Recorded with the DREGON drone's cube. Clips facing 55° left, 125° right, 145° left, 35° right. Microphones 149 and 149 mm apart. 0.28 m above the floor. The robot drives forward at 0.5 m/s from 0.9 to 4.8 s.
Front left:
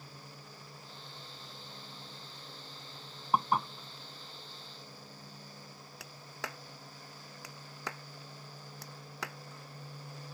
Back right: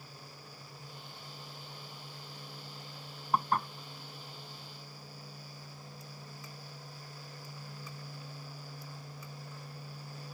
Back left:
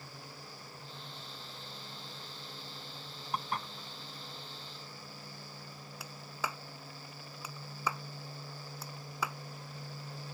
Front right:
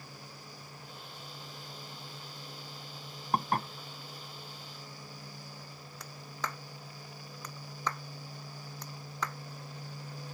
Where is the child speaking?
No child speaking in this recording.